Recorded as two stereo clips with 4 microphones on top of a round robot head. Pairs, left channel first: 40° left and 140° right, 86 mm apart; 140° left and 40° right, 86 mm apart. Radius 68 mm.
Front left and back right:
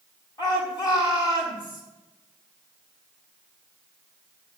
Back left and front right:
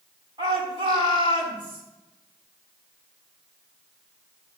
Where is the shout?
5° right, 6 m.